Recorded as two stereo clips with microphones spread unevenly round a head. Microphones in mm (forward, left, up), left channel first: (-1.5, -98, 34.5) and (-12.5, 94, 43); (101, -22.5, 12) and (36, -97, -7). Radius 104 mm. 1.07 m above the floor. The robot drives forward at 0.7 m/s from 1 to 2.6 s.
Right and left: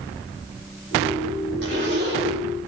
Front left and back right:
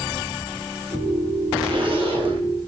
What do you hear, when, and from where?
1.6 s a zipper: 125° left, 3.5 m; by 2.5 s 135° left, 3.5 m